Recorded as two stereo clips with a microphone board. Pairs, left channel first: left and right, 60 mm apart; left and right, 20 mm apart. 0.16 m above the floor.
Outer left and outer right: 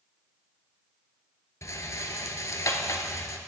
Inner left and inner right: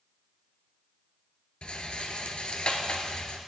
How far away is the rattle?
About 0.9 m.